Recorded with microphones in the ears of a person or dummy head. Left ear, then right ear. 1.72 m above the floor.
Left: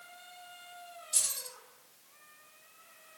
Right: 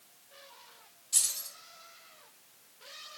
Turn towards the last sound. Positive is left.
turn(degrees=-20)  # may be behind; listen again after turning